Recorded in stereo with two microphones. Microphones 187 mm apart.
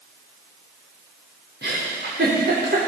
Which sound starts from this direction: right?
A giggle, at 1.6 s.